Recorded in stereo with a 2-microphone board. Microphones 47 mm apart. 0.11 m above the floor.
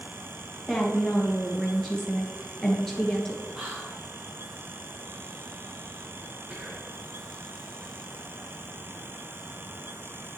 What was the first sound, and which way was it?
A woman speaking, centre (ahead or behind).